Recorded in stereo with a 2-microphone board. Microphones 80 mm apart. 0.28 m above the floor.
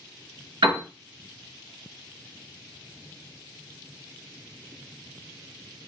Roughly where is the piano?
Right.